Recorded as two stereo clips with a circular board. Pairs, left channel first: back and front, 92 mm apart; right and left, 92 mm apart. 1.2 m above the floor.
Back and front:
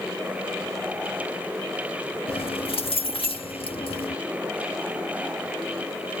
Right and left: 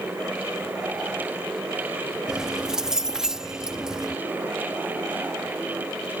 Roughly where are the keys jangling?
Behind.